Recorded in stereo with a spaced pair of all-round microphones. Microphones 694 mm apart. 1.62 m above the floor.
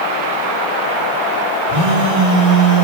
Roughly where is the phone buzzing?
Right.